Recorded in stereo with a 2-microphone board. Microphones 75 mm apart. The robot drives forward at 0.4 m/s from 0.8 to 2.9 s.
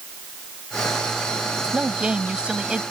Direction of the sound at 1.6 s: 15° right (ahead or behind).